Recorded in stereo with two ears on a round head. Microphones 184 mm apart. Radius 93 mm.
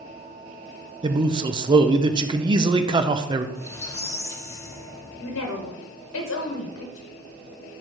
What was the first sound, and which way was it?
A man speaking, 20° right (ahead or behind).